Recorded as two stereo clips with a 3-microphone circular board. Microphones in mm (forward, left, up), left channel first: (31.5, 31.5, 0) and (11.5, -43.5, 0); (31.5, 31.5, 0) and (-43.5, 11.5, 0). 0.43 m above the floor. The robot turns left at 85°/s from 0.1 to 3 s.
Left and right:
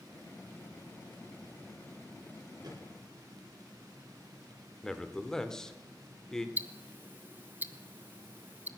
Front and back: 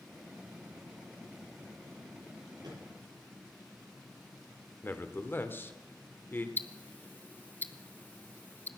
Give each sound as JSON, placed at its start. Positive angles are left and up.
{"t": 2.6, "sound": "a microwave", "azimuth_deg": -135, "distance_m": 9.5}
{"t": 4.8, "sound": "a man speaking", "azimuth_deg": 0, "distance_m": 1.2}
{"t": 6.6, "sound": "ticking", "azimuth_deg": -45, "distance_m": 0.8}